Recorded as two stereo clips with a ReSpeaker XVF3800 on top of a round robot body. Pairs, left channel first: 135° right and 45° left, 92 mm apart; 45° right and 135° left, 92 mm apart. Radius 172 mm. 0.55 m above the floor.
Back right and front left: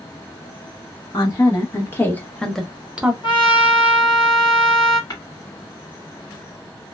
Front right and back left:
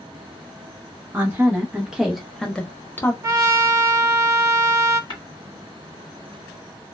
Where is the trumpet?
165° right, 1.2 m.